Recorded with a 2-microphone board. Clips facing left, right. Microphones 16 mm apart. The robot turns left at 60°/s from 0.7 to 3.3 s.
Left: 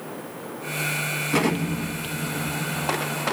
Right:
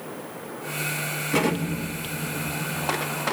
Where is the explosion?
5° right (ahead or behind), 0.8 m; by 3.3 s 60° left (ahead or behind), 0.8 m.